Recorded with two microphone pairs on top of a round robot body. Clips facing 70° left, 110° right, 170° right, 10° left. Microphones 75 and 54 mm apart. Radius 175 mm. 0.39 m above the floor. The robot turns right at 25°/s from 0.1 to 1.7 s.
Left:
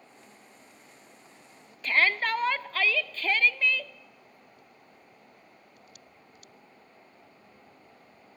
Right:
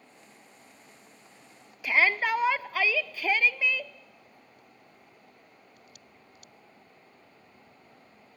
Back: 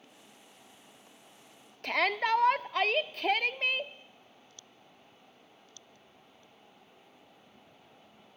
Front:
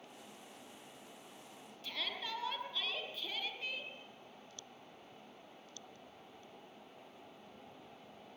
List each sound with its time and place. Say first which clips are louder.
1.8 s a shout: right 1 dB, back 15 dB; 175° left, 1.0 m